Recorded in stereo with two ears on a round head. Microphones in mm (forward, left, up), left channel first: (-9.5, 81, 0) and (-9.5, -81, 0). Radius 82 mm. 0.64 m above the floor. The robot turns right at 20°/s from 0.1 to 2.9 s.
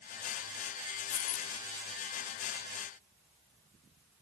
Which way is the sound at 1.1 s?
75° left (ahead or behind).